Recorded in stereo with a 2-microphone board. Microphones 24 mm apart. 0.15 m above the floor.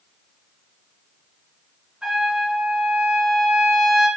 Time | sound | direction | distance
2.0 | a trumpet | 40° right (ahead or behind) | 1.4 m